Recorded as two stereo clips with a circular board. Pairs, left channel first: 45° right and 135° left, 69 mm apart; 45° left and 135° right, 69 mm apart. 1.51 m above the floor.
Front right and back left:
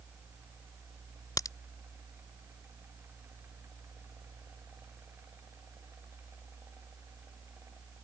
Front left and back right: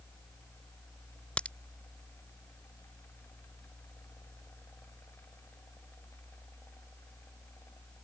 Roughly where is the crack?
Ahead right.